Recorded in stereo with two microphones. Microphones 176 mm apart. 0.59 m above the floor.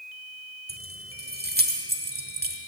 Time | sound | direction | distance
0.7 | keys jangling | 65° right (ahead or behind) | 1.2 m